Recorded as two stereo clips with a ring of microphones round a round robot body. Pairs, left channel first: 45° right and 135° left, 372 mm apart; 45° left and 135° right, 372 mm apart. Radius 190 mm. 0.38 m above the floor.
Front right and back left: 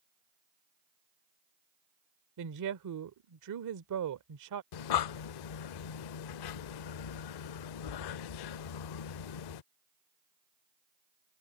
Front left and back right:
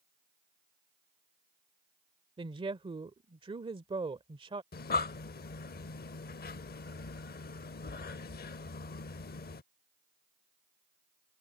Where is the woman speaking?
150° left.